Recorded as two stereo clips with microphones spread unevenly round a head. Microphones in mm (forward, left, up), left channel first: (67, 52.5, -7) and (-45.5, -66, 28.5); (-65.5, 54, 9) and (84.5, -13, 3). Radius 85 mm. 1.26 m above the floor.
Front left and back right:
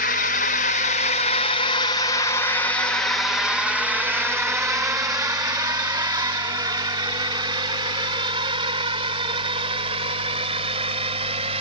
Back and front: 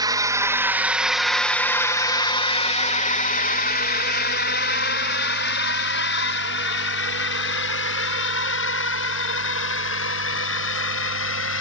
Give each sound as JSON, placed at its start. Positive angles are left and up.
{"t": 0.0, "sound": "a drone", "azimuth_deg": 40}